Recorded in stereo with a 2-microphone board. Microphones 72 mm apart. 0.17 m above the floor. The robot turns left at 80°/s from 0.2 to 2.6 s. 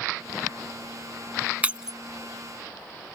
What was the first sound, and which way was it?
Breaking glass, 20° right (ahead or behind).